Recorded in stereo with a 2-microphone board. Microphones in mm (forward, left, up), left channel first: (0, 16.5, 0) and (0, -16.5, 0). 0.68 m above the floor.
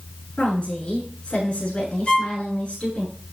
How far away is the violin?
About 6.5 m.